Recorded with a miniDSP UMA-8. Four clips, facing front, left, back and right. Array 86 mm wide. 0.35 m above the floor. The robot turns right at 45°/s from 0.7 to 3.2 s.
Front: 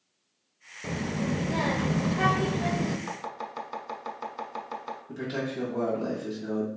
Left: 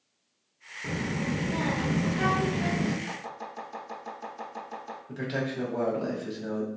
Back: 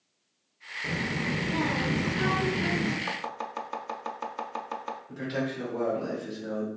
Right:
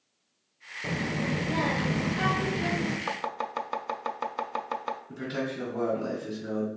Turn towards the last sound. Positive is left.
turn(degrees=75)